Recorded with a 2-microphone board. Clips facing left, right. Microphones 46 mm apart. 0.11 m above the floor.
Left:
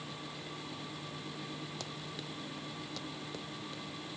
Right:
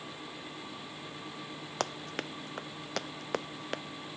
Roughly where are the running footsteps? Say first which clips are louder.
Right 8 dB; right.